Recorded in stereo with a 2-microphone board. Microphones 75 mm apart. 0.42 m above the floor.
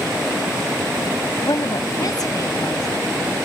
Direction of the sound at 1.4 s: 60° left (ahead or behind).